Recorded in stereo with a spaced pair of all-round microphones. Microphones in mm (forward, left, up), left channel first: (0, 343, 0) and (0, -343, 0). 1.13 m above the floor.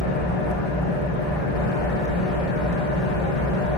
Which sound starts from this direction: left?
An engine running, at 0.0 s.